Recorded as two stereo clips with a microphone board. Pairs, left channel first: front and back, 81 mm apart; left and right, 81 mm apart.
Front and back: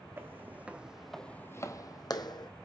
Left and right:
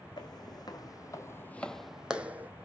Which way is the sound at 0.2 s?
120° left.